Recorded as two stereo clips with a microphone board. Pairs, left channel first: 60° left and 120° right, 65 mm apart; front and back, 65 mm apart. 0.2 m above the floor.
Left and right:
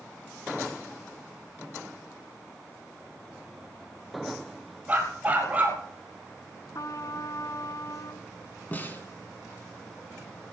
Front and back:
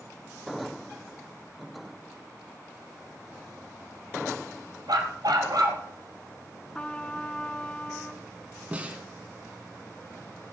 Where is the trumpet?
70° left, 0.7 m.